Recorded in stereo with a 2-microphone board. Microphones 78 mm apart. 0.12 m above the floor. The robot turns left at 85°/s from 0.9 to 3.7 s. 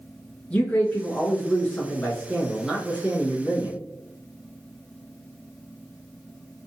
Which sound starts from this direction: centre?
A man speaking, at 0.5 s.